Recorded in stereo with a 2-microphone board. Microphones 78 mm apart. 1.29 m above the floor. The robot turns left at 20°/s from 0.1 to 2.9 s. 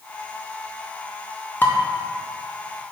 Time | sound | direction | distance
1.6 | dishes clattering | 25° left (ahead or behind) | 0.8 m